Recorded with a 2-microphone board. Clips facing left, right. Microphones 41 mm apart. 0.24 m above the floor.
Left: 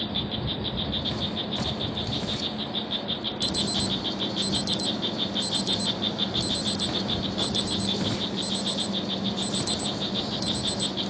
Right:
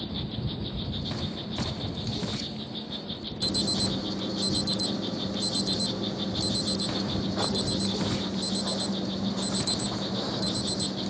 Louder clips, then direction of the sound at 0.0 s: Left 4 dB; 60° left (ahead or behind).